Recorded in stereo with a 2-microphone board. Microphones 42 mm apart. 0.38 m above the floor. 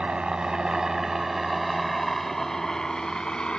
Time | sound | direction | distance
0.0 | a helicopter | 25° right (ahead or behind) | ?